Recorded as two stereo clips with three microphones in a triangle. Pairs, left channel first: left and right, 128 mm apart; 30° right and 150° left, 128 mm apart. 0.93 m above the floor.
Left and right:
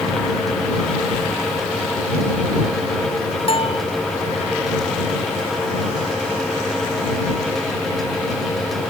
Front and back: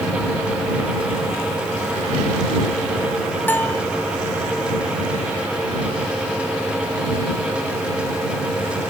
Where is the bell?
45° left.